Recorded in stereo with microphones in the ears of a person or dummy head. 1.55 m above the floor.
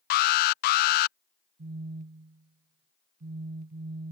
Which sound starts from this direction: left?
An alarm, at 0.1 s.